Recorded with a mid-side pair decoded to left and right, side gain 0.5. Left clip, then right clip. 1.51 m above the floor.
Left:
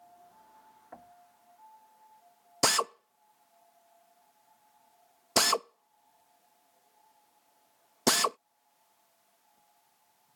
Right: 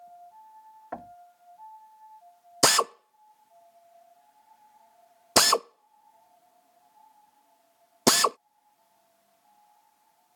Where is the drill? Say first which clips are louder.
Right 5 dB; 40° right.